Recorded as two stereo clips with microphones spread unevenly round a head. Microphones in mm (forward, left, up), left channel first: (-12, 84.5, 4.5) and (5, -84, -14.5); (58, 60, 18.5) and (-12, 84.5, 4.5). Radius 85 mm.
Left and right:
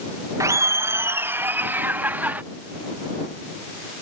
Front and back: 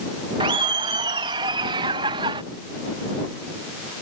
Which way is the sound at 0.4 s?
155° right.